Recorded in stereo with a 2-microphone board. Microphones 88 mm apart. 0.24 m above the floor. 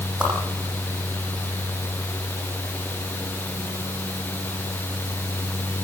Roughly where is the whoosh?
Centre.